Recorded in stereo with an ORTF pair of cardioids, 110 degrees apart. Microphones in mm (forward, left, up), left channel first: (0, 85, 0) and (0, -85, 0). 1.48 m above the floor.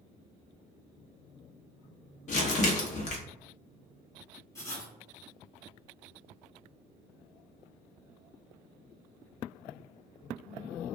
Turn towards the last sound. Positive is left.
turn(degrees=15)